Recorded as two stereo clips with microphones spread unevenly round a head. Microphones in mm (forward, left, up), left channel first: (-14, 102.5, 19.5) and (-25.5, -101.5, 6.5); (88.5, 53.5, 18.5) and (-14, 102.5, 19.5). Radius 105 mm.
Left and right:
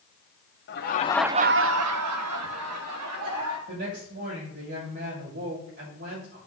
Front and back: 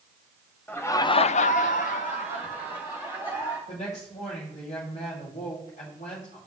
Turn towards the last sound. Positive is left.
turn(degrees=-55)